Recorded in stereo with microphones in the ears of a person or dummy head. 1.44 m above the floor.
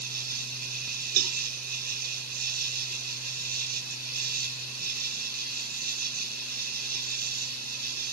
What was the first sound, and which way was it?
An insect, 50° right (ahead or behind).